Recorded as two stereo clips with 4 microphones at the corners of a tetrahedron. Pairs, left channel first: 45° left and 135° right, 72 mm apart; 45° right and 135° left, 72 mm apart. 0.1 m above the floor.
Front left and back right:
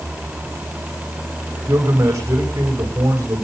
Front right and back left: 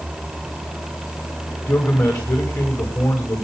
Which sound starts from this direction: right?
A man speaking, at 1.7 s.